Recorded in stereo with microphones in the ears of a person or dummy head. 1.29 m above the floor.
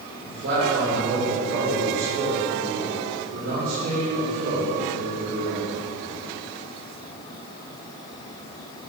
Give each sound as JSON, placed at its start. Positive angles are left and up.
{"t": 0.2, "sound": "a man speaking", "side_deg": -55, "distance_m": 4.0}